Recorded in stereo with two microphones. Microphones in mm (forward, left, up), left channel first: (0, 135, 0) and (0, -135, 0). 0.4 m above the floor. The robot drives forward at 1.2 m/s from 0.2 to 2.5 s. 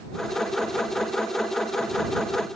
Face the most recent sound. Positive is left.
No sound to turn to.